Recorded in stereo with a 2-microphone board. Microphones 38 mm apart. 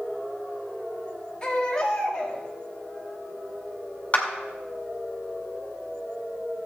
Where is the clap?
35° left (ahead or behind), 2 m.